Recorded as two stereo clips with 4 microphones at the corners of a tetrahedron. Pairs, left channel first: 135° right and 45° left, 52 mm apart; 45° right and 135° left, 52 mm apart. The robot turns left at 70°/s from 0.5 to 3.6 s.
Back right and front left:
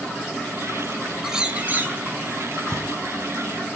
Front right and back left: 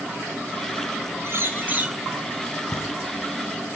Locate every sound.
1.2 s a bird: 125° left, 0.6 m; by 2.0 s 75° left, 0.6 m
2.7 s a camera shutter: 35° right, 0.9 m; by 2.8 s 45° right, 0.9 m